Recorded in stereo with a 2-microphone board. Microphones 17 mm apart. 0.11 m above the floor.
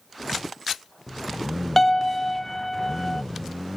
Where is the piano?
20° left (ahead or behind).